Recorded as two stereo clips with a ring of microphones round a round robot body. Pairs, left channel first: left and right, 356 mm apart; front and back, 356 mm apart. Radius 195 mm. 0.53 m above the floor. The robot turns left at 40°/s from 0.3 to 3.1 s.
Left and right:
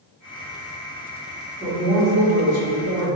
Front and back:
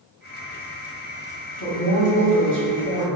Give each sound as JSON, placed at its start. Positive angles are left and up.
{"t": 1.6, "sound": "a woman speaking", "azimuth_deg": -5, "distance_m": 1.0}